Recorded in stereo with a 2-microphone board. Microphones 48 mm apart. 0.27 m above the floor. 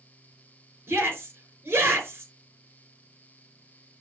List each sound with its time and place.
0.9 s a shout: 55° right (ahead or behind), 4 m